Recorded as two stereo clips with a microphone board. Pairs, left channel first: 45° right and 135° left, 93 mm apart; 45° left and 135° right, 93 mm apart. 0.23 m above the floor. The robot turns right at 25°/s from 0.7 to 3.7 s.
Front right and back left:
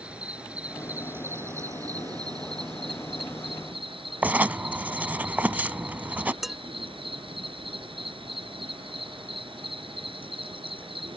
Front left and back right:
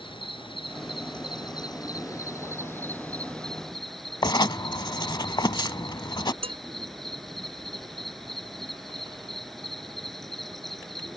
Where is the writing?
65° left.